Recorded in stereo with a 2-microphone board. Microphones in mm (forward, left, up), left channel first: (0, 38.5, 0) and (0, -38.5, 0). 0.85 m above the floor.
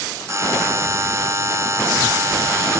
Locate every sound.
0.3 s a buzzer: 40° right (ahead or behind)